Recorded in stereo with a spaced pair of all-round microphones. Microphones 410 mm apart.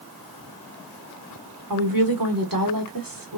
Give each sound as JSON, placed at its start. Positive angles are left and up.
{"t": 1.7, "sound": "a woman speaking", "side_deg": -55, "distance_m": 1.0}